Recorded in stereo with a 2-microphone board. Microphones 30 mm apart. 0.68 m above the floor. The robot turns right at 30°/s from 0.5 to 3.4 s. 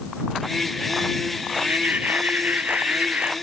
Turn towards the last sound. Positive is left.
turn(degrees=-50)